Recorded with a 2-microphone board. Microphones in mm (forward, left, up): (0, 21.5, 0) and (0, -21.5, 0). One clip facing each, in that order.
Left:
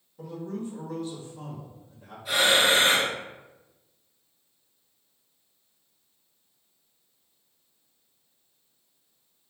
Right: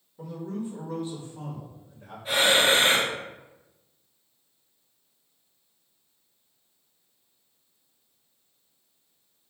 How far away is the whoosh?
No whoosh in this recording.